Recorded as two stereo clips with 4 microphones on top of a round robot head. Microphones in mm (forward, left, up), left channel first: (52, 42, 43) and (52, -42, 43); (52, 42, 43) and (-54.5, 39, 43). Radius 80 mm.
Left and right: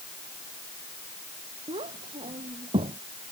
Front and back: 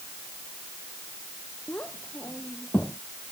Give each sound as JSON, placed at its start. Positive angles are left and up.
{"t": 1.7, "sound": "a child speaking", "azimuth_deg": -80}